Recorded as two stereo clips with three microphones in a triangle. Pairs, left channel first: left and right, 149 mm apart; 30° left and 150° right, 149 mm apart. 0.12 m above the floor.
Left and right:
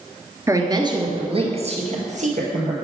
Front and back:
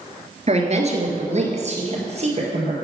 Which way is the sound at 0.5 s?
150° right.